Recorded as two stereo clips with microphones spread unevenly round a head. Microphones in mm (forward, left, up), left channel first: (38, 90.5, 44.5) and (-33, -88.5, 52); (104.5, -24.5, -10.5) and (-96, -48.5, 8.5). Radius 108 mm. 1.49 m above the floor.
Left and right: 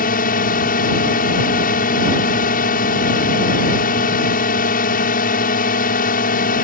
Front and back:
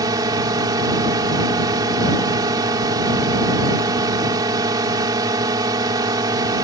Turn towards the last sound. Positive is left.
turn(degrees=115)